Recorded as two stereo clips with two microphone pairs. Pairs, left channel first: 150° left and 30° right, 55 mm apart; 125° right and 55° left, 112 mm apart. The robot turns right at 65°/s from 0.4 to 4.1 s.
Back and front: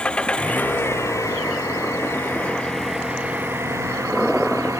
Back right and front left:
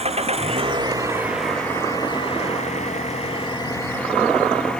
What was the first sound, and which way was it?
An engine running, 75° left.